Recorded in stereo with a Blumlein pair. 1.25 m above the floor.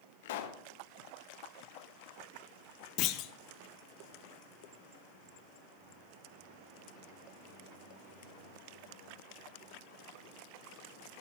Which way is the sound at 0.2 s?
55° left.